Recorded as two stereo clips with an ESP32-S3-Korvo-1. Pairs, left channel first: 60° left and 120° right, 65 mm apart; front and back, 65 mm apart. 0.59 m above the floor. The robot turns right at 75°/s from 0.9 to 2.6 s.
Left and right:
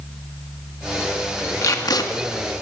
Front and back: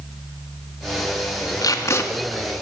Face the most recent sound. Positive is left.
turn(degrees=100)